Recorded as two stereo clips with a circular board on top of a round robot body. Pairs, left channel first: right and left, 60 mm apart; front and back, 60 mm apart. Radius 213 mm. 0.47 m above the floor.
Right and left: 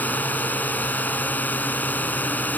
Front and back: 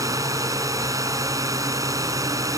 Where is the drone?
155° right.